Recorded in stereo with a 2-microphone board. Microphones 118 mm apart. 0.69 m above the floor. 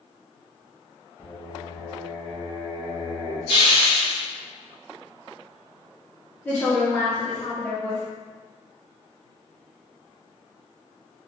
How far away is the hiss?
About 1.2 m.